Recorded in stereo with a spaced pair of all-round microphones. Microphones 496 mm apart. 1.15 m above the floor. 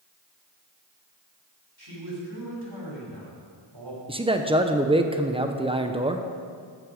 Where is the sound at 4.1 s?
10° right (ahead or behind), 0.6 m.